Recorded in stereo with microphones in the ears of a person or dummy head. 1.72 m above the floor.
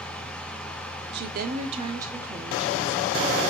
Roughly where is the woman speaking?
Right.